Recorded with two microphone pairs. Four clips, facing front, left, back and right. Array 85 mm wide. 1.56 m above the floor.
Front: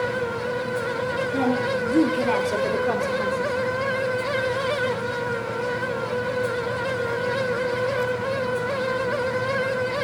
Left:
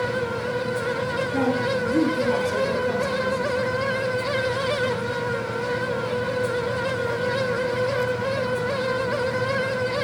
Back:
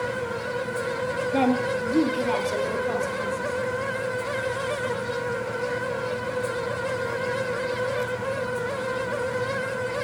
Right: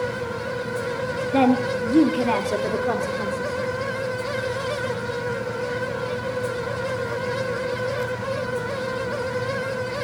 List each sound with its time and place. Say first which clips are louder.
1.3 s a woman speaking: right 5 dB, back 1 dB; 110° right, 1.2 m; by 3.5 s 45° right, 3.5 m